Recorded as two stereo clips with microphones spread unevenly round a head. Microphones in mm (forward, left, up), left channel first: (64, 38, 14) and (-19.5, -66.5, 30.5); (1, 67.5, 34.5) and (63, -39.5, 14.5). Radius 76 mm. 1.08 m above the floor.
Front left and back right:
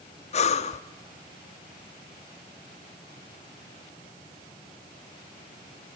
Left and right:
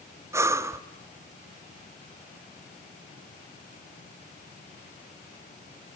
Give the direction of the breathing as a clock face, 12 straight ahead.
12 o'clock.